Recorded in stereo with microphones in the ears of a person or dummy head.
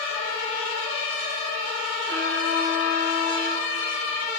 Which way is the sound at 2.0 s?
50° right (ahead or behind).